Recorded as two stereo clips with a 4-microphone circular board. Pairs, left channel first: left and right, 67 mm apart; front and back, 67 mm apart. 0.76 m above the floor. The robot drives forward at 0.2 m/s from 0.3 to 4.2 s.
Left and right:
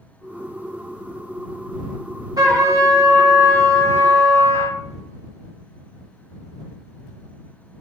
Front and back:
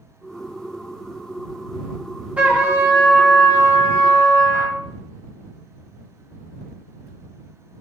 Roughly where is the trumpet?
Behind right.